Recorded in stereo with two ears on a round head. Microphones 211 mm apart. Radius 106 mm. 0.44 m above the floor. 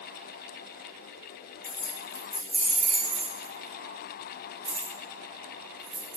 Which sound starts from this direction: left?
Keys jangling, at 1.6 s.